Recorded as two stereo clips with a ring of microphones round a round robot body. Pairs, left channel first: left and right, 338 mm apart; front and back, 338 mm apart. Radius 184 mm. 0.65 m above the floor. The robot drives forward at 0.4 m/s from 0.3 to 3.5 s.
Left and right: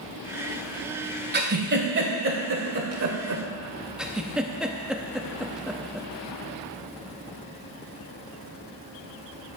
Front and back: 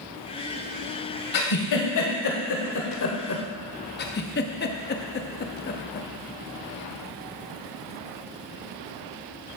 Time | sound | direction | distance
1.3 | a giggle | 30° right | 1.8 m
4.0 | a giggle | 5° right | 0.6 m